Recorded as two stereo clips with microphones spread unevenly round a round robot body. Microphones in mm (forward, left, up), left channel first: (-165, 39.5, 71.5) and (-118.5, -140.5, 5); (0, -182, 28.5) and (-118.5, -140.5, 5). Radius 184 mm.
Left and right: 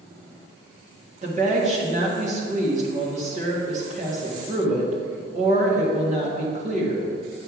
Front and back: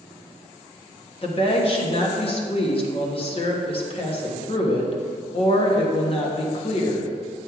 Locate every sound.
1.2 s a woman speaking: 60° right, 1.5 m